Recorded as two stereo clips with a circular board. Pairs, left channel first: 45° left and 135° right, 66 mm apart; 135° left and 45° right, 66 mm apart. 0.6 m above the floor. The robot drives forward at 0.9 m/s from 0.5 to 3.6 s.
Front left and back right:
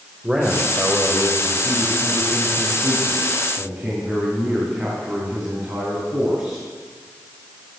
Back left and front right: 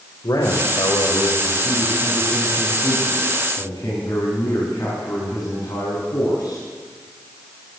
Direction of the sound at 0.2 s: 155° left.